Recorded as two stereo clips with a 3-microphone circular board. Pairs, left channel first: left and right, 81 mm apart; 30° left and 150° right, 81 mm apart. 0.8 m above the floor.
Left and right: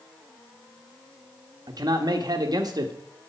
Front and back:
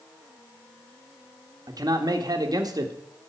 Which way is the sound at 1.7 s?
120° right.